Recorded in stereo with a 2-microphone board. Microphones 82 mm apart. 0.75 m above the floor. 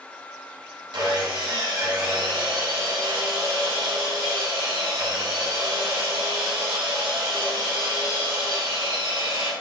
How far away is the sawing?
About 2.5 m.